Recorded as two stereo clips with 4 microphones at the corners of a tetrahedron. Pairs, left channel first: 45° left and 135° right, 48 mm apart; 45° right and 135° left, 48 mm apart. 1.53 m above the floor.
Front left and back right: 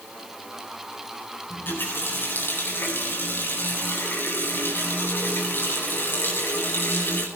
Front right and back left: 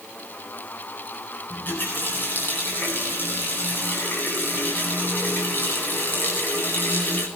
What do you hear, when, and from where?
1.5 s a running tap: 5° left, 9.5 m